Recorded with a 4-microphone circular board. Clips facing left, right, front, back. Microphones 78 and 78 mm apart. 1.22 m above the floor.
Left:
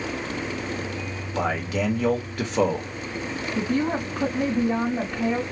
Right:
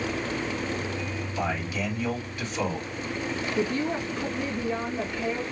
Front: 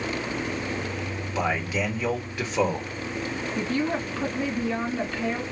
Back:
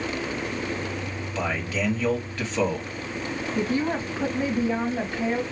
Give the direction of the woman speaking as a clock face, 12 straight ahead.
8 o'clock.